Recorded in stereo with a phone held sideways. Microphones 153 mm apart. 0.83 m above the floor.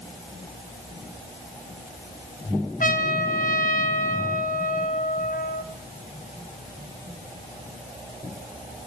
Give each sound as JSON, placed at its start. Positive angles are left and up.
{"t": 2.8, "sound": "a trumpet", "side_deg": 60, "distance_m": 0.9}